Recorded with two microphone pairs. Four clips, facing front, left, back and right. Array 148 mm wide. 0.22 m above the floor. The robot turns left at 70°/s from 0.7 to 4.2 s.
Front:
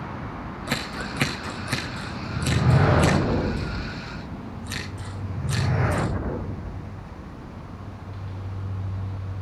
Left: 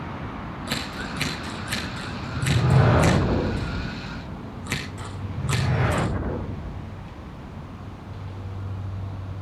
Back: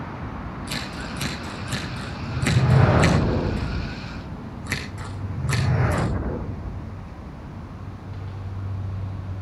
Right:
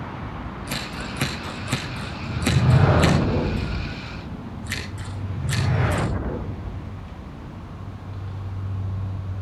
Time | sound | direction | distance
0.7 | scissors | 10° left | 8.5 m